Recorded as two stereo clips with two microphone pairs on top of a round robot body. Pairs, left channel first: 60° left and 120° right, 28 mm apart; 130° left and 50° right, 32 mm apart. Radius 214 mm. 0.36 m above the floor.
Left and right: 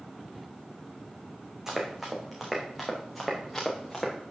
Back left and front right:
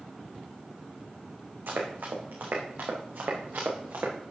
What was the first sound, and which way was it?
Running footsteps, 45° right.